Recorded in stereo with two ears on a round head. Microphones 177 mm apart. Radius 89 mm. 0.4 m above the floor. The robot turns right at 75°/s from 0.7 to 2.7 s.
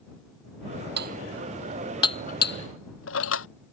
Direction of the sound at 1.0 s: 60° right (ahead or behind).